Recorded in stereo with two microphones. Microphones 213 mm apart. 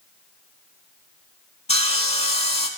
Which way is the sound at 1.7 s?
30° left (ahead or behind).